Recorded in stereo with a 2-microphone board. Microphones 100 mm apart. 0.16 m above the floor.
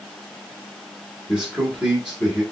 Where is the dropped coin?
I don't hear a dropped coin.